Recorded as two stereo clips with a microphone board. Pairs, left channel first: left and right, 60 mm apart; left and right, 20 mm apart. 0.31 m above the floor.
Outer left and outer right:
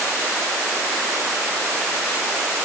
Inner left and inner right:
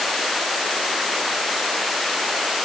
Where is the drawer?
I don't hear a drawer.